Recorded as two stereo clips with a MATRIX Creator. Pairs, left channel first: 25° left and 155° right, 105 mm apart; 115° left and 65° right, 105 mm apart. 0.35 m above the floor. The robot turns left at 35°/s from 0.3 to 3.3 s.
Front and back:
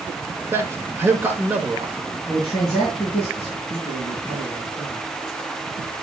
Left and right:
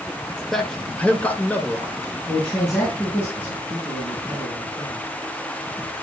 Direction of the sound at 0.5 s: 170° right.